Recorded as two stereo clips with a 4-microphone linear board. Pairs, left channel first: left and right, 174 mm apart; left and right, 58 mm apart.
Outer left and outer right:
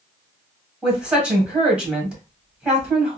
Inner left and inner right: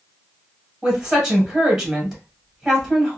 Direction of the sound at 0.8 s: 5° right (ahead or behind).